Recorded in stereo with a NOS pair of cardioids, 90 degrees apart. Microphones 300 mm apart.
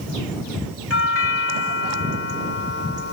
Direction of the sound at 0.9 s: 50° left.